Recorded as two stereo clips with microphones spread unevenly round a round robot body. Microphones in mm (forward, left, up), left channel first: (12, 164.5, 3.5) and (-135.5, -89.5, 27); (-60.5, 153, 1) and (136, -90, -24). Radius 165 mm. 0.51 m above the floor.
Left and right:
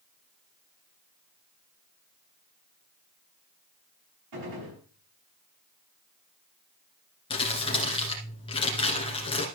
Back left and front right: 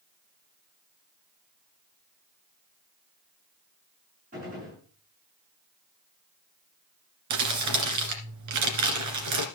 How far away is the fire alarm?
No fire alarm in this recording.